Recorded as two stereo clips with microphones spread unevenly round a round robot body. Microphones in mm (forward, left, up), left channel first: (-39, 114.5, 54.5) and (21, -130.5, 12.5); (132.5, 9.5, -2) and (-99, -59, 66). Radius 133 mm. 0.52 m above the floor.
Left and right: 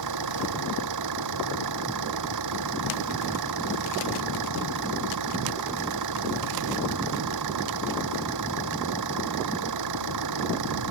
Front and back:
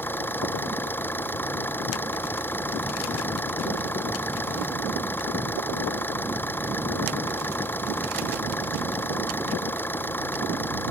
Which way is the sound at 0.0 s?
65° right.